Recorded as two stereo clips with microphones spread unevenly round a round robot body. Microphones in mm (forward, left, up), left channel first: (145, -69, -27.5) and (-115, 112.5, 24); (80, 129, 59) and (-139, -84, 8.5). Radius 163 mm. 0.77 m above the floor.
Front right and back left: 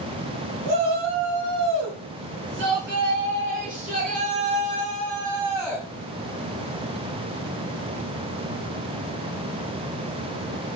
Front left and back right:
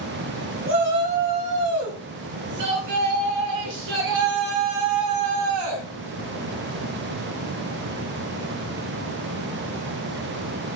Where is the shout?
175° left, 5 m; by 5.9 s 125° right, 3.5 m.